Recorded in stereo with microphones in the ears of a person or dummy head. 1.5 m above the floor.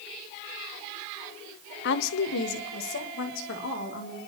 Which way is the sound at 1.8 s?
55° left (ahead or behind).